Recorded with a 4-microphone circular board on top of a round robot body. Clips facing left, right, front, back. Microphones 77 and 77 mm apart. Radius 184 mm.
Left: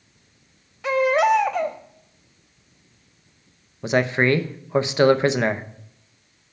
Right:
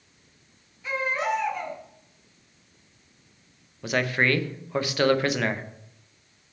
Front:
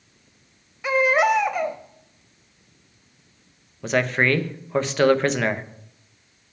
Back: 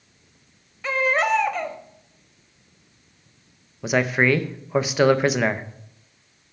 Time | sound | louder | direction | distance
0.8 | a baby crying | left 9 dB, front 3 dB | 75° left | 1.1 m
3.8 | a man speaking | left 5 dB, back 1 dB | 110° left | 0.8 m